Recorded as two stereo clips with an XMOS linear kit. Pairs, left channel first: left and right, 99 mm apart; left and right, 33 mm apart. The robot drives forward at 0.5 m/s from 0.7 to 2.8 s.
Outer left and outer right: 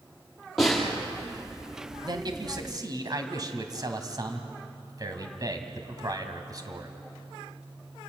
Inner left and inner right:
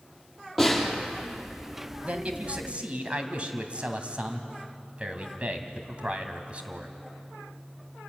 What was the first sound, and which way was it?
A snare drum, 5° left (ahead or behind).